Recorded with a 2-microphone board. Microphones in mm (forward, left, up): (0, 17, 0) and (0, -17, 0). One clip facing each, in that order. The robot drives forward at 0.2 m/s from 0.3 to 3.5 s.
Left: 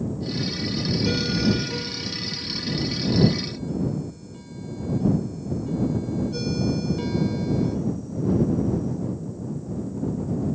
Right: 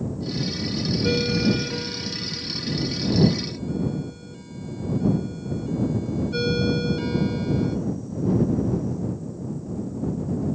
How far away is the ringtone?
About 1.6 m.